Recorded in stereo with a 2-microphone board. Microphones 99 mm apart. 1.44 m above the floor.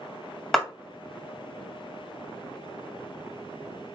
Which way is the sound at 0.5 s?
5° left (ahead or behind).